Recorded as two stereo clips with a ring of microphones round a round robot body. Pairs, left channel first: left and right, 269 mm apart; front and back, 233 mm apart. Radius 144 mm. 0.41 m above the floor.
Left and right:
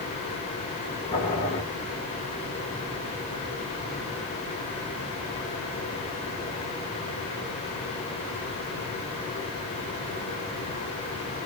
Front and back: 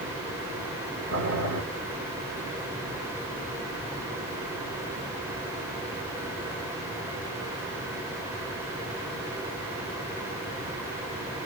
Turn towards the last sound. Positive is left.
turn(degrees=160)